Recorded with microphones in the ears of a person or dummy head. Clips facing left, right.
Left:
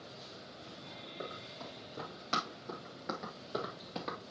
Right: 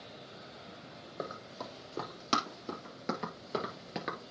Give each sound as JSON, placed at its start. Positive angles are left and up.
{"t": 1.2, "sound": "running footsteps", "side_deg": -65, "distance_m": 3.5}